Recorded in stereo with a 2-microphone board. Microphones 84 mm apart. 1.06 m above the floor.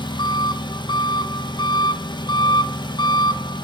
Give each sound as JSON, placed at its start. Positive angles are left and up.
{"t": 0.0, "sound": "an engine running", "side_deg": 65, "distance_m": 0.8}